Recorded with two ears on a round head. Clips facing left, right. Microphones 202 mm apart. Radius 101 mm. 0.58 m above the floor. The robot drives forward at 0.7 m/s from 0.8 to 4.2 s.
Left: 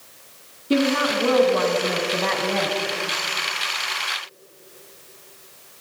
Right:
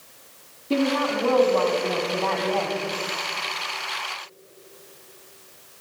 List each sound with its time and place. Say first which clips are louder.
0.7 s a woman speaking: left 2 dB; 20° left (ahead or behind), 4.5 m; by 2.8 s 25° left (ahead or behind), 3.5 m